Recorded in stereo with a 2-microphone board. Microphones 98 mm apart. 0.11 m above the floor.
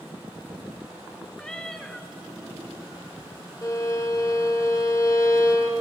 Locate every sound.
1.4 s a cat meowing: 10° left (ahead or behind), 0.8 m
3.6 s a violin: 30° left (ahead or behind), 1.3 m